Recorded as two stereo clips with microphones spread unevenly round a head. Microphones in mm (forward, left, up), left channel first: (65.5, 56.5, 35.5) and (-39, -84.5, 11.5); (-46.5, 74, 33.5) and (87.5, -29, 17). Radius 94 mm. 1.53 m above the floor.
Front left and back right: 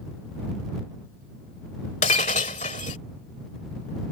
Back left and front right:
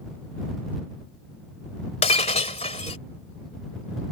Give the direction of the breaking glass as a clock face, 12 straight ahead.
9 o'clock.